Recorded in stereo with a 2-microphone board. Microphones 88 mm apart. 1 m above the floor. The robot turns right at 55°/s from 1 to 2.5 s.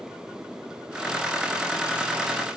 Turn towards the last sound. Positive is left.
No sound to turn to.